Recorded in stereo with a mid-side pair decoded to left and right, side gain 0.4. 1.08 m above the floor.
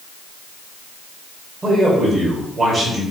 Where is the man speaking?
35° right, 2.0 m.